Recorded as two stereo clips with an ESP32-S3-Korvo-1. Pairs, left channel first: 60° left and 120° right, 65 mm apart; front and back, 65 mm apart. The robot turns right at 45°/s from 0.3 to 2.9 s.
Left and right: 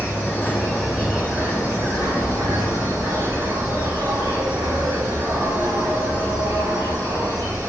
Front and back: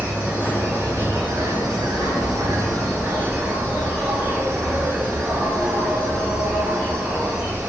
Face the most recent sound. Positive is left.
turn(degrees=-120)